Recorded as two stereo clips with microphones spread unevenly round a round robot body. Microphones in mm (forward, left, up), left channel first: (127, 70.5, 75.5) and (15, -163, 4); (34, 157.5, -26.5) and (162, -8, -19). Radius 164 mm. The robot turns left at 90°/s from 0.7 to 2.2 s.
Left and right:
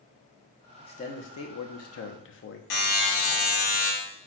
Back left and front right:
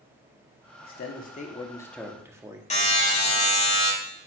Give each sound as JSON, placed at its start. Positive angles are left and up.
{"t": 0.8, "sound": "a man speaking", "azimuth_deg": 150, "distance_m": 1.1}
{"t": 2.7, "sound": "a buzzer", "azimuth_deg": 75, "distance_m": 3.0}